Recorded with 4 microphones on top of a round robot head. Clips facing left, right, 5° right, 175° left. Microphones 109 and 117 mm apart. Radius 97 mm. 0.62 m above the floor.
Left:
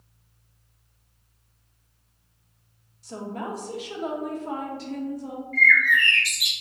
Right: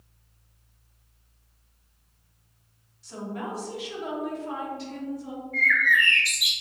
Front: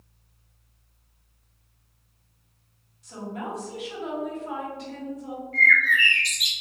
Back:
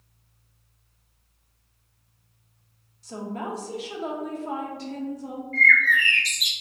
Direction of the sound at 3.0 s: 125° left.